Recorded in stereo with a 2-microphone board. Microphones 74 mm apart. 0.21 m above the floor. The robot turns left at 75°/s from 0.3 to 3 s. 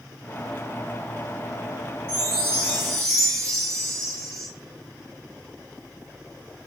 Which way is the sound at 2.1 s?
120° right.